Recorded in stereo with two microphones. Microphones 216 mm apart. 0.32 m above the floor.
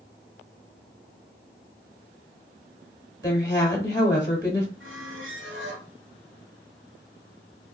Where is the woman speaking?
15° left (ahead or behind), 0.9 m.